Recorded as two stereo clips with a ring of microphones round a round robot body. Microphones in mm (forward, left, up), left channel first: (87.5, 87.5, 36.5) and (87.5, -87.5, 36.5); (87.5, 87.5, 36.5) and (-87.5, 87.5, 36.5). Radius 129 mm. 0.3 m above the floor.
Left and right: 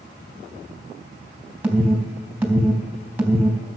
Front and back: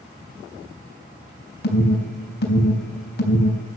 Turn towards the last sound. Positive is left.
turn(degrees=-10)